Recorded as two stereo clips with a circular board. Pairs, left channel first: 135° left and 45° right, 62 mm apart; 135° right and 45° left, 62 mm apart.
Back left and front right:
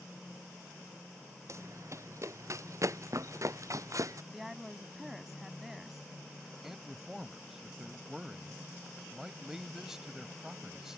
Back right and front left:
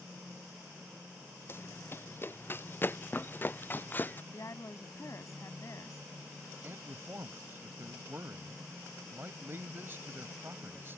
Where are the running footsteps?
85° right; by 4.2 s 75° right.